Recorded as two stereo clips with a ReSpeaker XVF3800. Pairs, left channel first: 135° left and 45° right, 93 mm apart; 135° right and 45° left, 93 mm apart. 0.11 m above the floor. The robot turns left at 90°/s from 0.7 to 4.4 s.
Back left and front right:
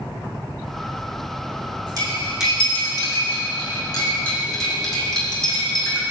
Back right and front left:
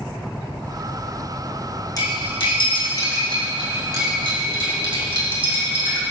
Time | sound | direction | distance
2.0 | cutlery clinking | 90° right | 3 m